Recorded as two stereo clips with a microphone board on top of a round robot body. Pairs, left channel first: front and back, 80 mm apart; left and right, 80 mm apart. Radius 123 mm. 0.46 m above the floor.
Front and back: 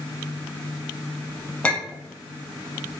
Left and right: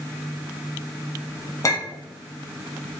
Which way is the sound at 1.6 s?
70° left.